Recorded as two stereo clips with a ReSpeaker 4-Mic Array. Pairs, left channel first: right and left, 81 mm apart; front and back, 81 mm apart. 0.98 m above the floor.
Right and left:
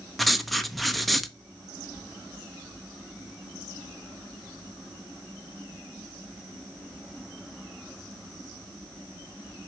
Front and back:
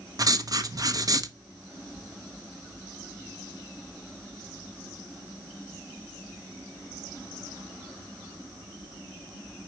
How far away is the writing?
About 0.8 m.